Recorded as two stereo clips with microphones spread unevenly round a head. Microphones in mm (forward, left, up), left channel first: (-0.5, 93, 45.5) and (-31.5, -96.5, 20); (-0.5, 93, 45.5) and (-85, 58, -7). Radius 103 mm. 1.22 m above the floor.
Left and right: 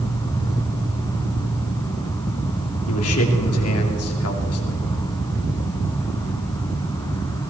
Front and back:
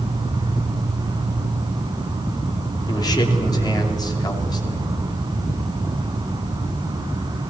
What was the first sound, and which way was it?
An insect, 135° left.